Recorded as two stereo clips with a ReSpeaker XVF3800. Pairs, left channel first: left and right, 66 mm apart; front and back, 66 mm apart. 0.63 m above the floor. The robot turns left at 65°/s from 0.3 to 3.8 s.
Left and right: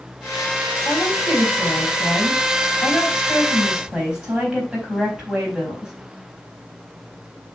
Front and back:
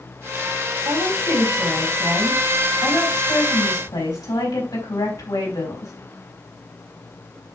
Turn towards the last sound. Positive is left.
turn(degrees=-10)